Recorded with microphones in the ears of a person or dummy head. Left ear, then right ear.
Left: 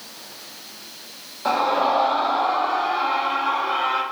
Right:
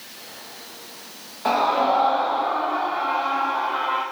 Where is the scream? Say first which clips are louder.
Even; 10° right (ahead or behind), 1.4 m; by 4.0 s 50° left (ahead or behind), 3 m.